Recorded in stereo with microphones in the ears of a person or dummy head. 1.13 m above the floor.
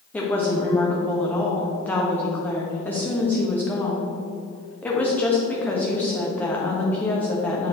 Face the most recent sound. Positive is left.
turn(degrees=10)  # may be behind; listen again after turning